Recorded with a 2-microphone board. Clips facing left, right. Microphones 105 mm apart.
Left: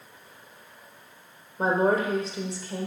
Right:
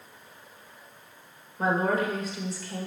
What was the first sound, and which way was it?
A woman speaking, 30° left (ahead or behind).